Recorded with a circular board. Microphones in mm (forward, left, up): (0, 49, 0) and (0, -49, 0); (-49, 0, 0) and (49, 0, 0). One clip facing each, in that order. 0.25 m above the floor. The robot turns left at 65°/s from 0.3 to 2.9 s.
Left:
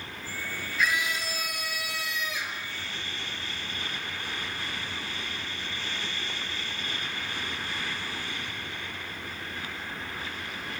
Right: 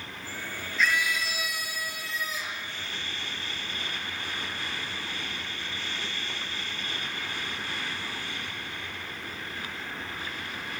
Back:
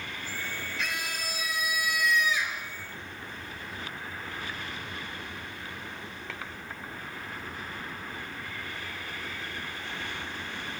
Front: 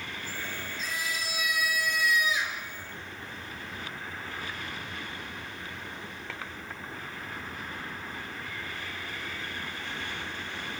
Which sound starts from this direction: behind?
A scream, at 0.8 s.